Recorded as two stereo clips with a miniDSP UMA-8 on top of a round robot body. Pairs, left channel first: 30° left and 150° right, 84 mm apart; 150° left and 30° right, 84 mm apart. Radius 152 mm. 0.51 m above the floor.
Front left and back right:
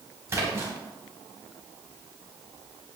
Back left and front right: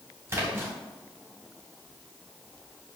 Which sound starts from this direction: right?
A splash, at 0.3 s.